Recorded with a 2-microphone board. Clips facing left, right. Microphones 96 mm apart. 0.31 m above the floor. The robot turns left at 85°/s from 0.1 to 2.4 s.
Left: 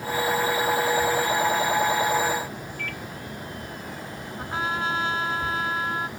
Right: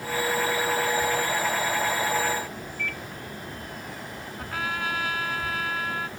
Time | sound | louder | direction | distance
2.8 | a microwave | right 3 dB | 55° left (ahead or behind) | ?
4.4 | a trumpet | left 3 dB | 25° left (ahead or behind) | ?